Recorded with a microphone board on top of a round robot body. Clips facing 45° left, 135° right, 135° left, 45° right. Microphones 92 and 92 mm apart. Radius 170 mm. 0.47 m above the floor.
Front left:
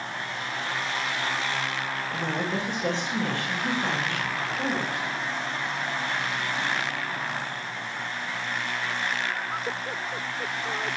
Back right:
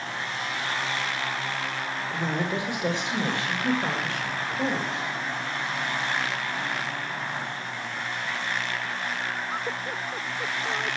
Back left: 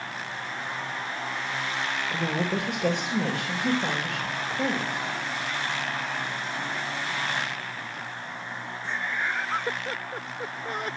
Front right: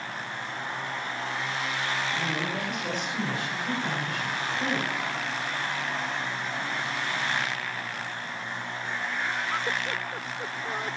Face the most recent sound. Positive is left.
turn(degrees=160)